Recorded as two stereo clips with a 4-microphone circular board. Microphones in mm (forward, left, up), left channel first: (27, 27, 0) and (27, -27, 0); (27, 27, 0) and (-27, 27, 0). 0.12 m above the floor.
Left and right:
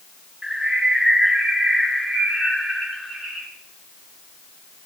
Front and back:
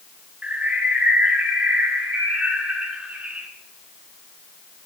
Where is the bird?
175° right, 1.7 m.